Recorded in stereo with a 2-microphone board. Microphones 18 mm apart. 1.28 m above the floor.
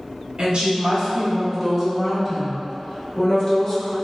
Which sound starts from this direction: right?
A woman speaking, at 0.4 s.